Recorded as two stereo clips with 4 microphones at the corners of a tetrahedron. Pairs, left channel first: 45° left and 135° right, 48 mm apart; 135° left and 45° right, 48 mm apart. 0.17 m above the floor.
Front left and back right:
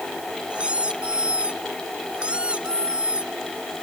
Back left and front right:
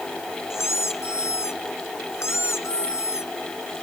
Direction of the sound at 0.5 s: 155° left.